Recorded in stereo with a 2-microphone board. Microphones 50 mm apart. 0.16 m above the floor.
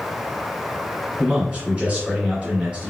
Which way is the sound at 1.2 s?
20° right (ahead or behind).